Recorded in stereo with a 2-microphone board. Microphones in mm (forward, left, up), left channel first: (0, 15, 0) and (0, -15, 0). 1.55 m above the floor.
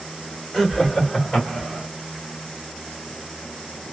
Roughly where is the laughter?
Centre.